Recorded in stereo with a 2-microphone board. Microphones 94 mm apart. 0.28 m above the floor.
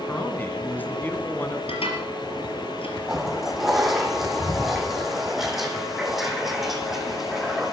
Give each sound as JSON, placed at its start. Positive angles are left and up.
{"t": 0.1, "sound": "a man speaking", "side_deg": 20, "distance_m": 2.0}
{"t": 1.7, "sound": "dishes clattering", "side_deg": 80, "distance_m": 4.0}
{"t": 3.1, "sound": "a toilet flushing", "side_deg": 0, "distance_m": 2.5}